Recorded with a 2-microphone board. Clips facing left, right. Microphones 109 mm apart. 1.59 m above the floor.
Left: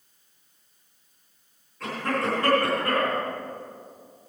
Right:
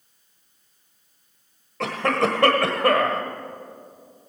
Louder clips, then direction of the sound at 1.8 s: Right 5 dB; 75° right (ahead or behind).